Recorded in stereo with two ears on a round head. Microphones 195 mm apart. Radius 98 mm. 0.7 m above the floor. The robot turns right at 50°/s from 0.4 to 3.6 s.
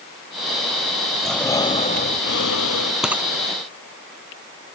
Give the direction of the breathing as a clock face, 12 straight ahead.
12 o'clock.